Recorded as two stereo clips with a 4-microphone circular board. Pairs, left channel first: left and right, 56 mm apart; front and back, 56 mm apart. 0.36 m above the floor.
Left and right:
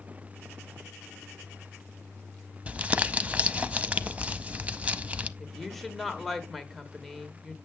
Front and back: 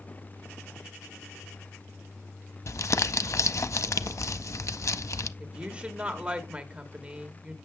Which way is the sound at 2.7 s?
25° right.